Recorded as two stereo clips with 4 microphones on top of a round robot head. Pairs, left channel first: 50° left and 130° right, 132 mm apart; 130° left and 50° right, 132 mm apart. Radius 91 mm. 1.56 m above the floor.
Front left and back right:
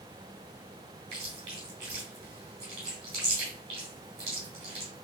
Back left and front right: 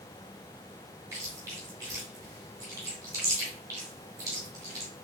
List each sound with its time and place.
1.1 s chewing: 105° right, 1.4 m